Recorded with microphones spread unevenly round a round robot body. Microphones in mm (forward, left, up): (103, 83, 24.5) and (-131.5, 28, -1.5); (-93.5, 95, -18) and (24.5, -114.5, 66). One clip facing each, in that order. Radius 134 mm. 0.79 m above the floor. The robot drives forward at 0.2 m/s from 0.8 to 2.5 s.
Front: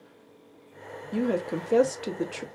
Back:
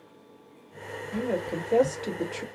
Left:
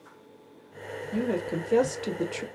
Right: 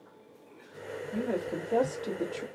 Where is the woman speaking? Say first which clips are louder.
Front 3 dB, left 4 dB; 75° left, 0.6 m; by 2.5 s 100° left, 0.6 m.